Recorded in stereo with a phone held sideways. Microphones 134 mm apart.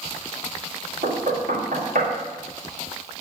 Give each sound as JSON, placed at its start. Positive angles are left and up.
{"t": 1.0, "sound": "knocking", "side_deg": -80, "distance_m": 3.5}